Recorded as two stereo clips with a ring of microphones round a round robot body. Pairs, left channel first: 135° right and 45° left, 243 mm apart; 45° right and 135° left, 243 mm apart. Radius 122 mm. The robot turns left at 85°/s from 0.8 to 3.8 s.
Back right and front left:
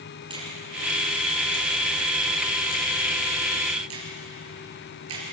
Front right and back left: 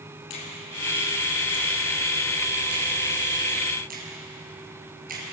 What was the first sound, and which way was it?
A finger snap, 25° right.